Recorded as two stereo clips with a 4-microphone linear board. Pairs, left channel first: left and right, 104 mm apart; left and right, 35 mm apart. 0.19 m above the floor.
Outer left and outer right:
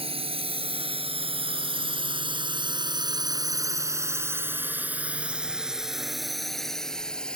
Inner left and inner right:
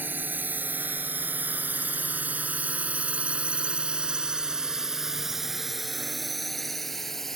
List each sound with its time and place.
0.0 s a drone: 65° right (ahead or behind); by 7.4 s 10° left (ahead or behind)